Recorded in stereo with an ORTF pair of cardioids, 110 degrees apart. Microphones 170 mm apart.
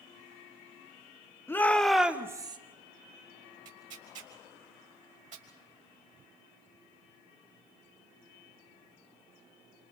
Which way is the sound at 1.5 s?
15° left.